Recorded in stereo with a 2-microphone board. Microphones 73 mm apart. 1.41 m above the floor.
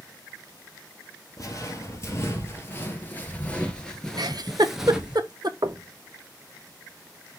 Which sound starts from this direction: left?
Footsteps, at 1.4 s.